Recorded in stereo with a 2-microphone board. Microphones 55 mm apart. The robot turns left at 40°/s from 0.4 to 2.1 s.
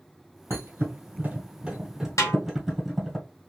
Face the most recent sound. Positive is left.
turn(degrees=80)